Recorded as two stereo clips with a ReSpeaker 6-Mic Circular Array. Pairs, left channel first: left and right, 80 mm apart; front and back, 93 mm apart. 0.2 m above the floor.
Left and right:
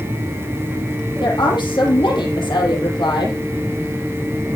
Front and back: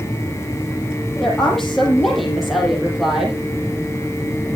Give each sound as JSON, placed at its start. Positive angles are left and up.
{"t": 1.2, "sound": "a woman speaking", "azimuth_deg": 85, "distance_m": 6.0}